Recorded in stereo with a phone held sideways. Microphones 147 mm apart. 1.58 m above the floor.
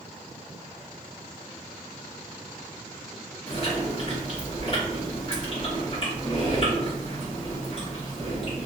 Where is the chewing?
45° left (ahead or behind), 1.1 m.